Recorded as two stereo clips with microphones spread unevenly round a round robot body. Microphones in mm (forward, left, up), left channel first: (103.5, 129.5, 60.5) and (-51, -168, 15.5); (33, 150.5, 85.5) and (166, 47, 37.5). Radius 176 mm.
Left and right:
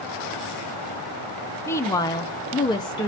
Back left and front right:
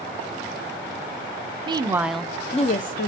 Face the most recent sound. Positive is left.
turn(degrees=145)